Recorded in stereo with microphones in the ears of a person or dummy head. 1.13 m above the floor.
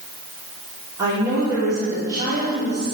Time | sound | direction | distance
1.0 | a woman speaking | 15° right (ahead or behind) | 3.5 m